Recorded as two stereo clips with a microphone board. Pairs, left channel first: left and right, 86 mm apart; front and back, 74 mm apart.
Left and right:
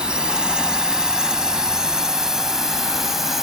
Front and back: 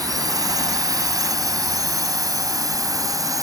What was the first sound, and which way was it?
A drone, 170° right.